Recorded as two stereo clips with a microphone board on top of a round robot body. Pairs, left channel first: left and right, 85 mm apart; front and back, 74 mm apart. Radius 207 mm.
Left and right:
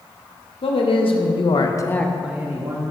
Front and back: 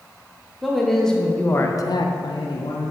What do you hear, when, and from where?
0.6 s a man speaking: 90° left, 1.2 m; by 2.9 s 40° right, 1.0 m